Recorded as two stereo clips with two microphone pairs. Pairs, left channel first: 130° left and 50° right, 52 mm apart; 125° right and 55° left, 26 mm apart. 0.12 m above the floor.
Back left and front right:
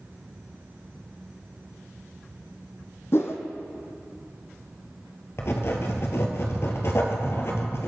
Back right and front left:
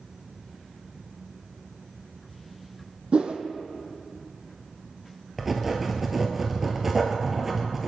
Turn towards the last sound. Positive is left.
turn(degrees=130)